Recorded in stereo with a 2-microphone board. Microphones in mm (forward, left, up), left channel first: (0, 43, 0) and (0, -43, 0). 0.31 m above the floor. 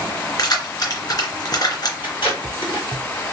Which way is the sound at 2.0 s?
70° left (ahead or behind).